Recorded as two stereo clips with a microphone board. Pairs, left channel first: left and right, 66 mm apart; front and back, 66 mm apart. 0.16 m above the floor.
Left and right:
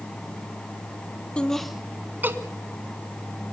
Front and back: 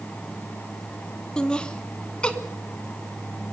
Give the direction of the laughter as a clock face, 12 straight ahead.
11 o'clock.